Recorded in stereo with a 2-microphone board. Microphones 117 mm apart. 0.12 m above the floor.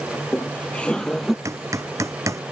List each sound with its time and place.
0.1 s laughter: 20° left (ahead or behind); by 1.4 s centre (ahead or behind)
1.4 s hammering: 25° right (ahead or behind)